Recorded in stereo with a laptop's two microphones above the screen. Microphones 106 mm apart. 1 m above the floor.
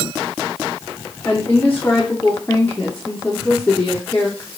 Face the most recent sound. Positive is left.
turn(degrees=15)  # may be behind; listen again after turning